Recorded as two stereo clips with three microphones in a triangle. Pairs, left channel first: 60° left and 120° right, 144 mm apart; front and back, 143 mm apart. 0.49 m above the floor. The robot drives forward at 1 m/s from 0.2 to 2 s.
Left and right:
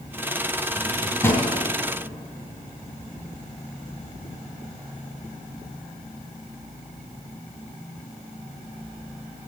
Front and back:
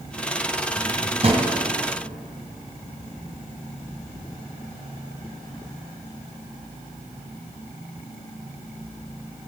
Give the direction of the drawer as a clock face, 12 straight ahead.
8 o'clock.